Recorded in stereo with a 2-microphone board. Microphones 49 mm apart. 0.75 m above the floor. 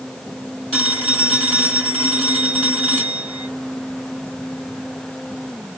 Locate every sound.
0.7 s a phone ringing: 20° left (ahead or behind), 4.5 m